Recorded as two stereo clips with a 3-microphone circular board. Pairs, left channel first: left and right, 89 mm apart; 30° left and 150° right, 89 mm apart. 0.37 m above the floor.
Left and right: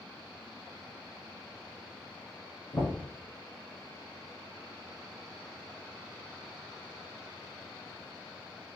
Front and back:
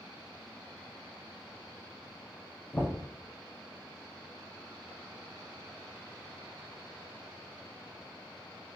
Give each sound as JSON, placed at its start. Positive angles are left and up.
{"t": 2.7, "sound": "knocking", "azimuth_deg": 90, "distance_m": 2.5}